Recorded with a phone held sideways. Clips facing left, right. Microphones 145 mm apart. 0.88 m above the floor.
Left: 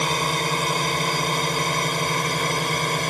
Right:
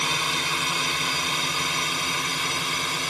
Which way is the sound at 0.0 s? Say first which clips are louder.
Left 6 dB; 45° left (ahead or behind).